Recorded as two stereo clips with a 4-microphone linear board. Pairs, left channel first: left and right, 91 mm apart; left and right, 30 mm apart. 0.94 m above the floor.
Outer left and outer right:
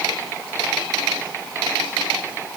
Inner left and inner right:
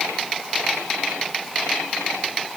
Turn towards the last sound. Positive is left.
No sound to turn to.